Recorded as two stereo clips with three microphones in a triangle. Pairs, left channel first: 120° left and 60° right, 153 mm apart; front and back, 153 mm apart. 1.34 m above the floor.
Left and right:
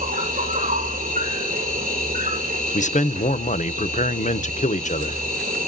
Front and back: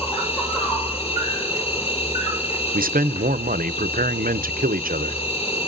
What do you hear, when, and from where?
0.0 s an insect: 50° right, 6 m
2.7 s a man speaking: 160° left, 0.6 m